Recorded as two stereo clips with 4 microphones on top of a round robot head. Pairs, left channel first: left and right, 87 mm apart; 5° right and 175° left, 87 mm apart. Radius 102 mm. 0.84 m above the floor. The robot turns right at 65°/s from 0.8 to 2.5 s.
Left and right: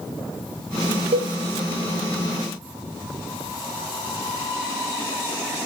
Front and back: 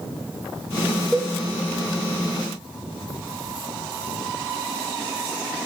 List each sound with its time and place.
1.1 s a cowbell: 95° right, 0.7 m; by 1.3 s 85° right, 0.7 m